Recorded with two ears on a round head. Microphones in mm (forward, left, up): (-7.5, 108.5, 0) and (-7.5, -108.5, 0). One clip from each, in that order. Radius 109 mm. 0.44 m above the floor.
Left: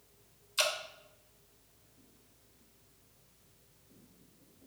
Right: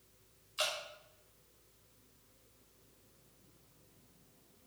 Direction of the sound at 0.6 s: 55° left (ahead or behind).